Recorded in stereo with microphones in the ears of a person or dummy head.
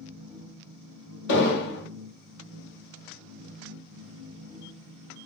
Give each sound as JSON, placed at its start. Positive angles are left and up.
{"t": 0.0, "sound": "a machine running", "side_deg": -30, "distance_m": 0.8}
{"t": 1.3, "sound": "an explosion", "side_deg": 60, "distance_m": 0.7}